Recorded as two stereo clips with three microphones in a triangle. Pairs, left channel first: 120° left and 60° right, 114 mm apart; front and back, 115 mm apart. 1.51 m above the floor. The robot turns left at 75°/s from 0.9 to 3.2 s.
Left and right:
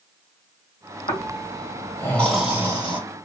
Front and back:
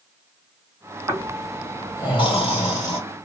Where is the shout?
No shout in this recording.